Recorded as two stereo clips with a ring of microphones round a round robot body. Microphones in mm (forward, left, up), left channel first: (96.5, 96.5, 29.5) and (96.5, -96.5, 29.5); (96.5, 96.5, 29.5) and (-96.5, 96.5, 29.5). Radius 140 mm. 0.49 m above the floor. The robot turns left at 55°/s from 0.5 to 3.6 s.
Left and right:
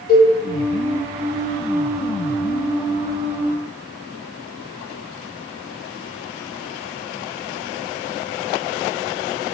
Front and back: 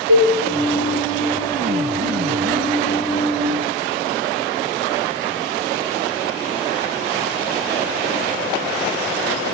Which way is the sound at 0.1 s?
145° left.